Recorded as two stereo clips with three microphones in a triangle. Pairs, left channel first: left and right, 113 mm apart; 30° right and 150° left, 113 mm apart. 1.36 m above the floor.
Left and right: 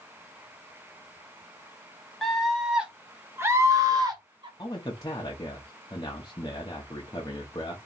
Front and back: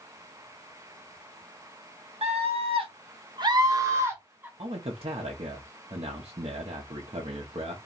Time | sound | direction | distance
2.2 | a scream | straight behind | 1.5 m
4.6 | a man speaking | 135° left | 0.9 m